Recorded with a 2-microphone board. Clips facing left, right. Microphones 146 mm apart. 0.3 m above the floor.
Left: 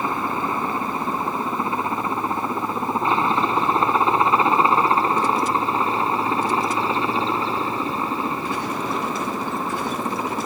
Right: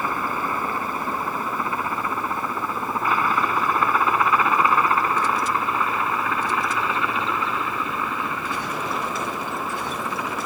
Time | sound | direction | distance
0.0 | a helicopter | 25° left (ahead or behind) | ?